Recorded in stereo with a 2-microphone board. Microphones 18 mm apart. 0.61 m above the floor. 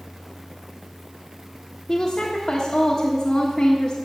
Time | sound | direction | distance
1.9 | a woman speaking | 25° left (ahead or behind) | 1.4 m